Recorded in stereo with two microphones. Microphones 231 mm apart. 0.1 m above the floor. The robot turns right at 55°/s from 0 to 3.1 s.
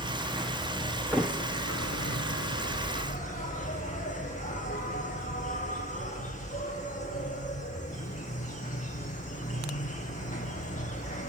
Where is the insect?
20° right, 6.5 m; by 11.3 s 150° left, 6.5 m.